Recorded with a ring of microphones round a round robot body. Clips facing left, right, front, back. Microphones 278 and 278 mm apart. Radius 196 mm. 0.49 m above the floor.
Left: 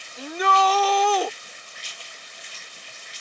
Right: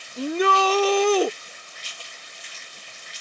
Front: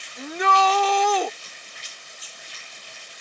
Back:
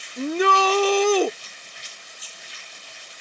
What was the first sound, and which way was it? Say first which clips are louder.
A shout: right 4 dB, back 4 dB; 140° right.